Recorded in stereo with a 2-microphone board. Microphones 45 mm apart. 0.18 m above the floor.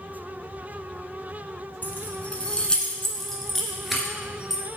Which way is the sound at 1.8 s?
40° left (ahead or behind).